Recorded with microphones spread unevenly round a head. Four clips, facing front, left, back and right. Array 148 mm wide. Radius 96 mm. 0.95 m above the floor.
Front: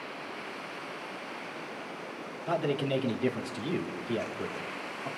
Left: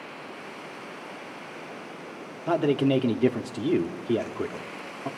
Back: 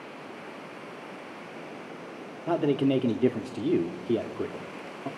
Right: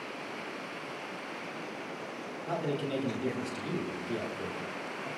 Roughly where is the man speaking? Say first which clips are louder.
Left 11 dB, back 5 dB; behind left.